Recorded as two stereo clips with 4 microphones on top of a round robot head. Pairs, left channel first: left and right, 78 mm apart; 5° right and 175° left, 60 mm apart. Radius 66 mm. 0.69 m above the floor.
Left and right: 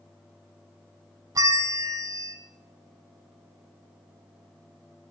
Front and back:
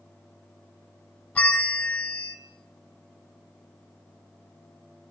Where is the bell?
65° right, 0.8 m.